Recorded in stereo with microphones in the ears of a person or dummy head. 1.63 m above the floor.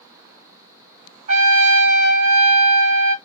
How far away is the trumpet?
About 1.7 m.